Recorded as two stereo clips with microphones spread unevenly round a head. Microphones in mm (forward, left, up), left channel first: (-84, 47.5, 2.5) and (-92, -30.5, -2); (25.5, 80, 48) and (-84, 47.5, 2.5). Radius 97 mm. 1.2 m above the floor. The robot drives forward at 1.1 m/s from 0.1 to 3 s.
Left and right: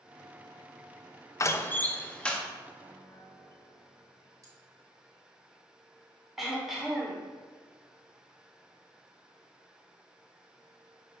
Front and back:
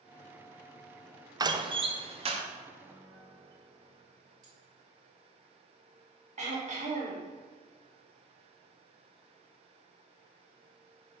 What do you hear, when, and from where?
1.4 s a door slam: 135° left, 0.8 m; by 2.4 s 160° left, 1.7 m
2.8 s a piano: 130° left, 2.5 m; by 4.3 s 135° left, 3 m
4.4 s cutlery clinking: 140° right, 2.5 m
6.4 s throat clearing: straight behind, 2.5 m